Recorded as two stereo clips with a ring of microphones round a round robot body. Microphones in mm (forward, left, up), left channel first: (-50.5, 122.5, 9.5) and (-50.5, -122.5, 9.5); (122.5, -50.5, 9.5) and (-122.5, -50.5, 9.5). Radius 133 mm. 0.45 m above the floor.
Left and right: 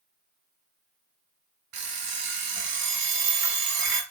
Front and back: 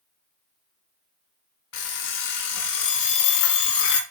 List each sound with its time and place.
1.7 s an alarm clock: 40° right, 1.1 m